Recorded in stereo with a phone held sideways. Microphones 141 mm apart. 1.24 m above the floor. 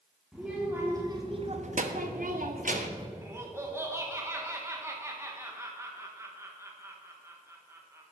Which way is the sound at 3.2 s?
20° right (ahead or behind).